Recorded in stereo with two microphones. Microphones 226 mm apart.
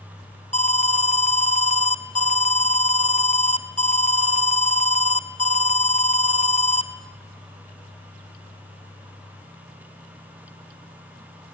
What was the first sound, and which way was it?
An alarm, 30° left (ahead or behind).